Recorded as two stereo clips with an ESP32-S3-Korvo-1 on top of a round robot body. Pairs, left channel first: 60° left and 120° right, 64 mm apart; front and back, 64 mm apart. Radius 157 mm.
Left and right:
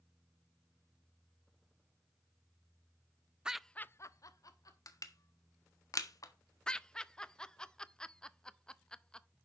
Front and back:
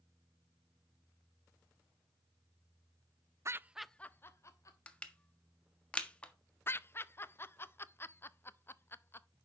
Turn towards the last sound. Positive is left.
turn(degrees=-10)